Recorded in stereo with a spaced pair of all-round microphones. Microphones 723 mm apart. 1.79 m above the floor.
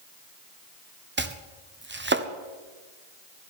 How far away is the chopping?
About 0.6 m.